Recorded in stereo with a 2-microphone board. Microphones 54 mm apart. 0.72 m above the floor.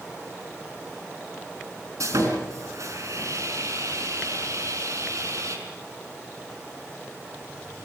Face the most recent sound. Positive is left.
turn(degrees=-75)  # may be behind; listen again after turning